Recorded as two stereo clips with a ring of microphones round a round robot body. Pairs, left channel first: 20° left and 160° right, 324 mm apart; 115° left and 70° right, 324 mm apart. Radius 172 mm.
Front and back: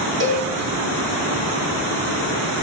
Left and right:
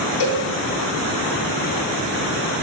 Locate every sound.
0.2 s a cowbell: 145° left, 7 m